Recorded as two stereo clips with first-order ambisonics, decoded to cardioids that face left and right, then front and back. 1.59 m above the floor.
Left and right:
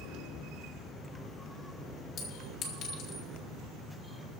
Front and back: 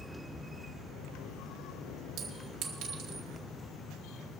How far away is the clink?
About 2.5 m.